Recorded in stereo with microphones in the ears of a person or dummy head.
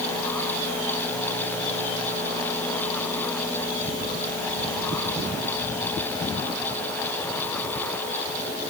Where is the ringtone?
No ringtone in this recording.